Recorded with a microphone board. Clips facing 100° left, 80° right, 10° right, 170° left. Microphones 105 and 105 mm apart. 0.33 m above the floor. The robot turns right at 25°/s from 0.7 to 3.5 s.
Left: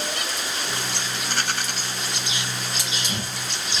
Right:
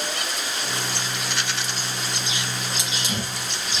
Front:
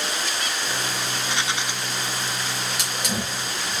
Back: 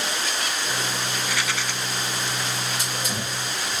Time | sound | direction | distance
1.1 | a rattle | 45° left | 1.2 m
2.8 | a hiss | 10° right | 5 m